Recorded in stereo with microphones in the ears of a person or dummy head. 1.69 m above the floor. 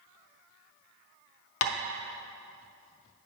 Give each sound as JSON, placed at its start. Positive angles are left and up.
{"t": 1.6, "sound": "tapping", "side_deg": 75, "distance_m": 0.5}